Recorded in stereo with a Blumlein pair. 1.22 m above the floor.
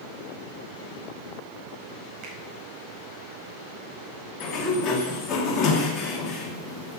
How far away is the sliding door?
About 2.5 m.